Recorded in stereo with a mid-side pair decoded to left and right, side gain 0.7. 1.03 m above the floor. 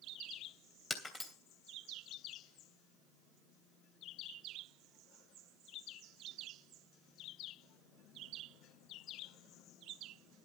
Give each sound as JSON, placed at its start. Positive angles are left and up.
{"t": 0.9, "sound": "breaking glass", "azimuth_deg": 20, "distance_m": 3.0}